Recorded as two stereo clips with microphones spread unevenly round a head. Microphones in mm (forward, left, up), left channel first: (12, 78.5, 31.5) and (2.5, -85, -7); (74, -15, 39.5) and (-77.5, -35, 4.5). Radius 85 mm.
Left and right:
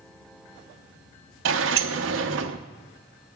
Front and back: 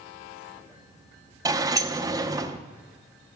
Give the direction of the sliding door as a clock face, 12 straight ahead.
3 o'clock.